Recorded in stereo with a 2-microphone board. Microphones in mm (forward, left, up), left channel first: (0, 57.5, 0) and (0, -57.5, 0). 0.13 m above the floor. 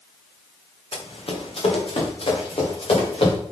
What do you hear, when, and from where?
0.9 s running footsteps: 55° left (ahead or behind), 2.5 m